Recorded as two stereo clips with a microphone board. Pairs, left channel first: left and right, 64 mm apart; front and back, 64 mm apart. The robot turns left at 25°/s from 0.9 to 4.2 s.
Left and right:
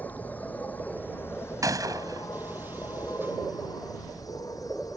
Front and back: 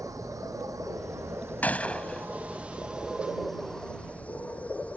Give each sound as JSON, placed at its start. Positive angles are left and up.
{"t": 0.0, "sound": "an insect", "azimuth_deg": 150}
{"t": 1.6, "sound": "a gunshot", "azimuth_deg": -60}